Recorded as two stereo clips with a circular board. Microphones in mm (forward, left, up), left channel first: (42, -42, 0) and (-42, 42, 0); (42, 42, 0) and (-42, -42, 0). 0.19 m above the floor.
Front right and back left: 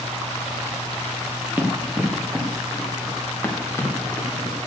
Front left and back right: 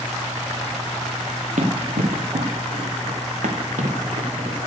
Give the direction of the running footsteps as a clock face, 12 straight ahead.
5 o'clock.